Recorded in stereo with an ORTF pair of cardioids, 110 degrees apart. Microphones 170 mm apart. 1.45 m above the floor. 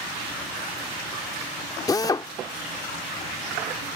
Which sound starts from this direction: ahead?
A drill, at 1.9 s.